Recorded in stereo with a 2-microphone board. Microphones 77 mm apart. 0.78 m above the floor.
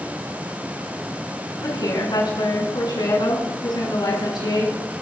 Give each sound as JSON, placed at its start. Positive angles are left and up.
{"t": 1.6, "sound": "a woman speaking", "side_deg": 75, "distance_m": 10.0}